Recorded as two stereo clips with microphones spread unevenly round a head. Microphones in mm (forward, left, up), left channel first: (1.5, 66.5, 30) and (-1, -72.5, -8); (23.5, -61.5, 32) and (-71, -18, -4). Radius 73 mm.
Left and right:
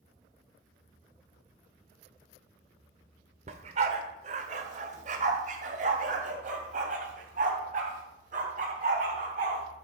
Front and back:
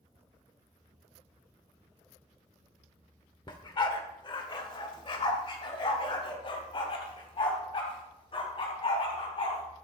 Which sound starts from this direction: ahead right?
A dog barking, at 3.5 s.